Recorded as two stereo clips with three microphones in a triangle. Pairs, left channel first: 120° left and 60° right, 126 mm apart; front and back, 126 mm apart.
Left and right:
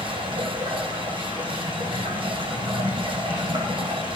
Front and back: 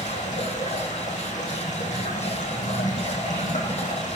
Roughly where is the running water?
Ahead.